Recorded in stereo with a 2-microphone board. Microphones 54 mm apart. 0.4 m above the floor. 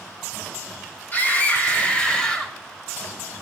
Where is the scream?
35° left (ahead or behind), 2 m; by 2.5 s 10° left (ahead or behind), 1.9 m.